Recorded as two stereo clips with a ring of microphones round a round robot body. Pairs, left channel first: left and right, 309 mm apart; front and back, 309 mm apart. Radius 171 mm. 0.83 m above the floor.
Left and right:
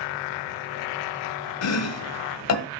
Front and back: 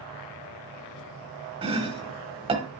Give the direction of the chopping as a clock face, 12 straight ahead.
8 o'clock.